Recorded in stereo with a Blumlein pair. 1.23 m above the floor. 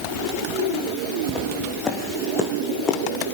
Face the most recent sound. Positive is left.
turn(degrees=20)